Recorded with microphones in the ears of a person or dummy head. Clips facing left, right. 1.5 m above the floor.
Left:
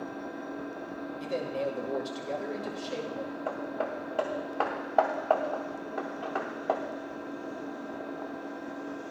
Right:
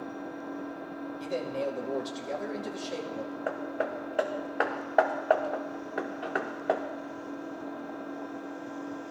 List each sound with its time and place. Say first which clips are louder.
0.0 s an engine running: even; 50° left (ahead or behind), 6 m
1.2 s a man speaking: even; 5° left (ahead or behind), 1.5 m
3.5 s hammering: right 2 dB; 20° right (ahead or behind), 0.9 m